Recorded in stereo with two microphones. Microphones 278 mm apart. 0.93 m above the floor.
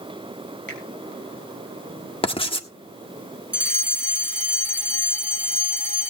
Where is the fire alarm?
5° right (ahead or behind), 2.5 m.